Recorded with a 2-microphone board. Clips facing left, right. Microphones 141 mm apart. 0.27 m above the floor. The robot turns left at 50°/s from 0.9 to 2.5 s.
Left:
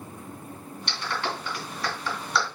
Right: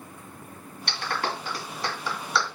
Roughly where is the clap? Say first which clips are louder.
Right 1 dB; right.